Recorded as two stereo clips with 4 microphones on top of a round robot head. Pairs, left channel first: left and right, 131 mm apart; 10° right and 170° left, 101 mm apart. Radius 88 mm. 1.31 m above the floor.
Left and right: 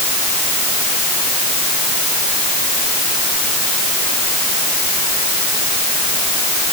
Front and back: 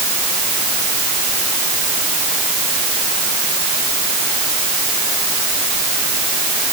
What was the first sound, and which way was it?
Only background noise.